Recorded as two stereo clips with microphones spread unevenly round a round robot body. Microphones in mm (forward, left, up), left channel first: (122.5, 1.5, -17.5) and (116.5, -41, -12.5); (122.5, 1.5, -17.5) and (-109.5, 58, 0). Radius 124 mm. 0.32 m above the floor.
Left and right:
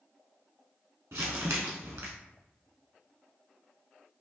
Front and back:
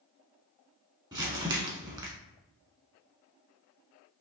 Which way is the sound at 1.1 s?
120° right.